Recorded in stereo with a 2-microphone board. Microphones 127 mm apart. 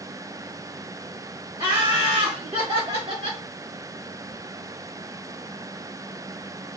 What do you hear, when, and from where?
1.6 s laughter: 40° right (ahead or behind), 1.3 m; by 3.4 s 50° right (ahead or behind), 2.0 m